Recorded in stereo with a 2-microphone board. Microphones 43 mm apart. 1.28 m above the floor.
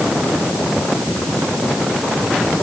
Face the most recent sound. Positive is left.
No sound to turn to.